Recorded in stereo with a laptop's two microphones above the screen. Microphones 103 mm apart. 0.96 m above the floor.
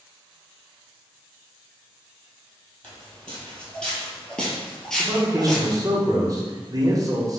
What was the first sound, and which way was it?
Footsteps, 10° left (ahead or behind).